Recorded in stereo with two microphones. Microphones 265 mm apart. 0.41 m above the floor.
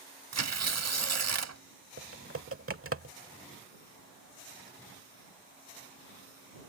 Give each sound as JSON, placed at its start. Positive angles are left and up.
{"t": 0.3, "sound": "tearing paper", "side_deg": -70}
{"t": 2.0, "sound": "typing on a keyboard", "side_deg": -55}